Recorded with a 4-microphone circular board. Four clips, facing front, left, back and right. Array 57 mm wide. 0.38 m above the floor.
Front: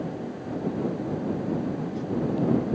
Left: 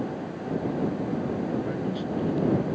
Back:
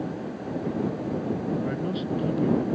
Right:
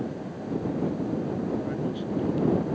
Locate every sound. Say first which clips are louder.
1.6 s a man speaking: left 1 dB, back 1 dB; 175° left